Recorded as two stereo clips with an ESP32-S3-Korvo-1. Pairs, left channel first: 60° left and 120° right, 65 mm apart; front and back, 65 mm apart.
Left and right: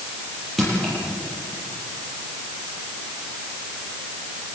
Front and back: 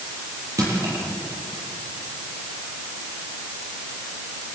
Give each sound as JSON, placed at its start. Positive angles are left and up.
{"t": 0.6, "sound": "crushing", "azimuth_deg": 150, "distance_m": 9.5}